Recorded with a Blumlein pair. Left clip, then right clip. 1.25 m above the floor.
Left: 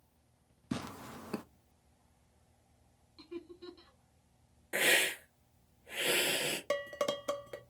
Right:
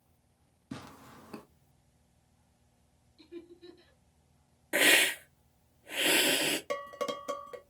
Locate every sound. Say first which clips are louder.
0.7 s tearing paper: left 5 dB; 70° left, 0.5 m
3.2 s laughter: left 2 dB; 50° left, 3 m
4.7 s a hiss: right 5 dB; 15° right, 0.8 m
6.7 s dishes clattering: left 1 dB; 15° left, 0.8 m